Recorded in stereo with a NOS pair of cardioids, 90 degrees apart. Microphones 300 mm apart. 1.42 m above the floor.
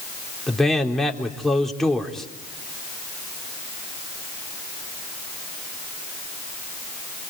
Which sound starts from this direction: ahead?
A man speaking, at 0.5 s.